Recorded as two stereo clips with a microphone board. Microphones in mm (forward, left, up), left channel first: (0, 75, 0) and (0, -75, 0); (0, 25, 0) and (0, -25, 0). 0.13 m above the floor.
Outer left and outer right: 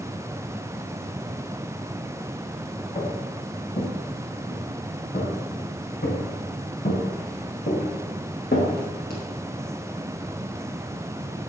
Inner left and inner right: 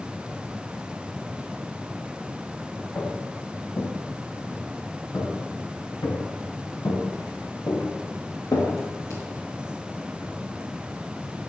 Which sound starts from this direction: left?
Footsteps, at 3.0 s.